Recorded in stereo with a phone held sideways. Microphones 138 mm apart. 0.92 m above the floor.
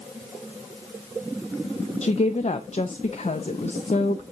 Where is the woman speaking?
55° left (ahead or behind), 0.5 m.